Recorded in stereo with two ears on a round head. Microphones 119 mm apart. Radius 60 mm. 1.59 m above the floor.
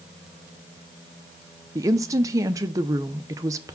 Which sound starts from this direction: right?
A woman speaking, at 1.8 s.